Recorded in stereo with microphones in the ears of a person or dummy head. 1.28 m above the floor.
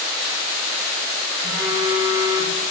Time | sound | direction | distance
1.4 | a phone buzzing | 20° right (ahead or behind) | 3.5 m